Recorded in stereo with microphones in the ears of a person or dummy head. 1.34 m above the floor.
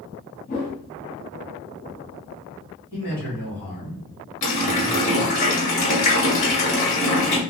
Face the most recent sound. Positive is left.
turn(degrees=40)  # may be behind; listen again after turning